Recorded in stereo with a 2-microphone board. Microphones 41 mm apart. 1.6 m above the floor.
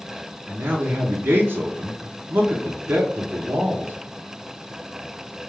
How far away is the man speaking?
About 0.8 m.